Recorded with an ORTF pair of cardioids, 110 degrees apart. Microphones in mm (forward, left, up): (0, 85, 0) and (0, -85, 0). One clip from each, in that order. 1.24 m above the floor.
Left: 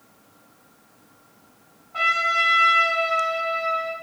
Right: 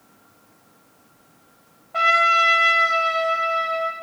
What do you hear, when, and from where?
1.9 s a trumpet: 40° right, 1.0 m